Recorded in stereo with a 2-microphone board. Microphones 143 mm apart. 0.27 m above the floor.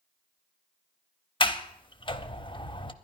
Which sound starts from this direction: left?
A sliding door, at 1.4 s.